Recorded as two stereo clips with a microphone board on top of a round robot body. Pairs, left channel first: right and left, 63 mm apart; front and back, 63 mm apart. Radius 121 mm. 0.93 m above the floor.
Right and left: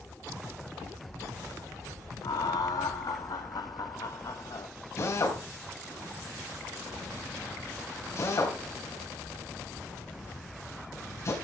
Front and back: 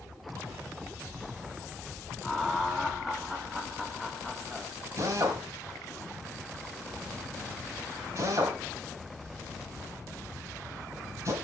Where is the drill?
135° right, 4 m.